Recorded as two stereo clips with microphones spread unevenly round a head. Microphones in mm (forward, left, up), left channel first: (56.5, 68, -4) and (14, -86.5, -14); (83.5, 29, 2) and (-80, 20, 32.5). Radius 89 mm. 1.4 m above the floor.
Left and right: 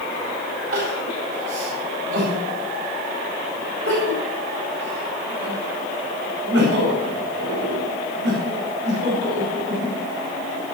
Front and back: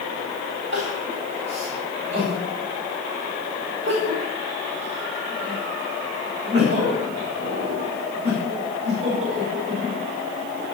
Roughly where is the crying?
Behind right.